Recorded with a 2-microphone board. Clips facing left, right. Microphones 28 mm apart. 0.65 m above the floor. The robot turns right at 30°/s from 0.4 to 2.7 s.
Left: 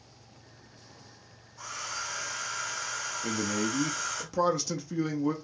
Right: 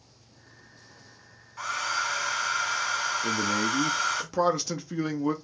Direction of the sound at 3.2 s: 15° right (ahead or behind).